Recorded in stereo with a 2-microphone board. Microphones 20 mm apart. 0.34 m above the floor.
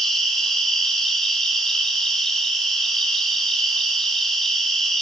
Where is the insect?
40° left (ahead or behind), 1.7 m.